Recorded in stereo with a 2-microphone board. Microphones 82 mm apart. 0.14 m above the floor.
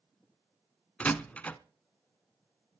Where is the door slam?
15° left (ahead or behind), 0.7 m.